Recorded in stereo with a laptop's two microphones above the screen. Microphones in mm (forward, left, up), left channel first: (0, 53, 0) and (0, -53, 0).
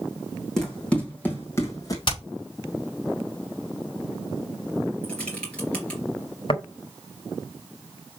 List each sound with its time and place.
0.6 s running footsteps: 5° left (ahead or behind), 2.5 m; by 2.0 s 35° left (ahead or behind), 2 m
2.1 s hammering: 50° left (ahead or behind), 4.5 m
5.0 s typing on a keyboard: 10° left (ahead or behind), 2.5 m
6.5 s tapping: 60° left (ahead or behind), 1.2 m